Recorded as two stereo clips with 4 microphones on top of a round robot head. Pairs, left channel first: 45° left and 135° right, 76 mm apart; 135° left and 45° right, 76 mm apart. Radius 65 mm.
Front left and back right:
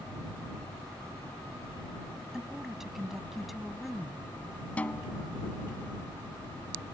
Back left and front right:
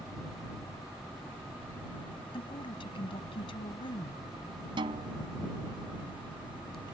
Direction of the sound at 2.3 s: 145° left.